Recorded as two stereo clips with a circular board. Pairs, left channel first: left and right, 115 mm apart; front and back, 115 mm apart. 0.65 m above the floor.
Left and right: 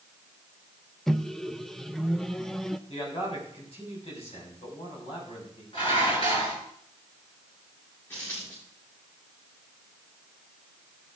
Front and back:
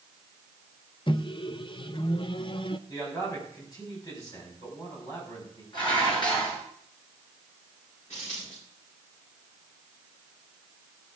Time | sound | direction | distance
1.1 | a microwave | 5° left | 0.5 m
2.9 | a man speaking | 55° left | 5 m
5.7 | dishes clattering | 50° left | 5.5 m
8.1 | a dropped coin | 20° left | 8.5 m